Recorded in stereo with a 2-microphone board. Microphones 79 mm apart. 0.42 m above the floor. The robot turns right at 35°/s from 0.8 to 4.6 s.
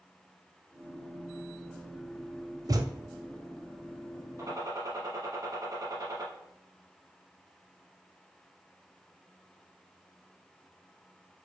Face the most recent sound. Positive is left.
turn(degrees=-50)  # may be behind; listen again after turning